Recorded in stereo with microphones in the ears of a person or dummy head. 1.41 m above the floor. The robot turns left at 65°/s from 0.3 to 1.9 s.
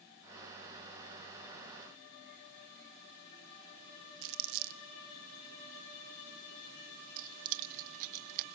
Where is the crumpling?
70° right (ahead or behind), 0.7 m.